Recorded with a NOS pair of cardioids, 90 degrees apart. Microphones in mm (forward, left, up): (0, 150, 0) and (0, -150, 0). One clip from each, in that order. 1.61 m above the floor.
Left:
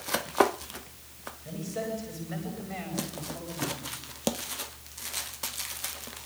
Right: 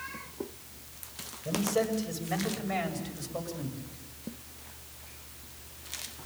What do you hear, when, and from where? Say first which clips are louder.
1.4 s a man speaking: right 6 dB; 65° right, 8.5 m; by 3.8 s 75° right, 9 m